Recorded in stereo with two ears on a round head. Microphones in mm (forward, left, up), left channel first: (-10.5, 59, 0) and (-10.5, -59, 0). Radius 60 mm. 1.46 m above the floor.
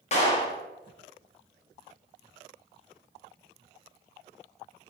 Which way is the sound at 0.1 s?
55° left (ahead or behind).